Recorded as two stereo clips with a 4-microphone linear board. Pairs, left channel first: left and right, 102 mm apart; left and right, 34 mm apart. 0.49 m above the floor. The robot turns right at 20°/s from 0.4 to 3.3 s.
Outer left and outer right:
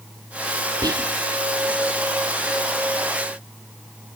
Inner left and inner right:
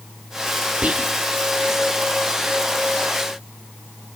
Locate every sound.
0.8 s whispering: 40° right (ahead or behind), 0.9 m; by 1.1 s 35° right (ahead or behind), 0.9 m